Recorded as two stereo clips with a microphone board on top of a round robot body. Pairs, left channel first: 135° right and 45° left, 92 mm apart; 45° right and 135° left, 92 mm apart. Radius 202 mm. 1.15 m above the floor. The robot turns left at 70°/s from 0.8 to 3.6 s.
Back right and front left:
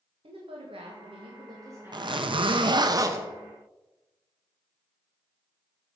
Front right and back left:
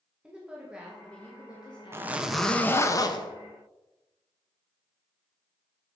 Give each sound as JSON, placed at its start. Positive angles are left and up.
{"t": 0.2, "sound": "a woman speaking", "azimuth_deg": 55, "distance_m": 2.5}
{"t": 1.9, "sound": "a zipper", "azimuth_deg": 75, "distance_m": 1.4}